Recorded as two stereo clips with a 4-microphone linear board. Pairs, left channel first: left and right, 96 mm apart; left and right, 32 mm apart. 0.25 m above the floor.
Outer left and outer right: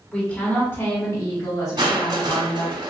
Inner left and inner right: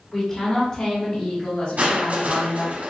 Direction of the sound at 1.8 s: 55° right (ahead or behind).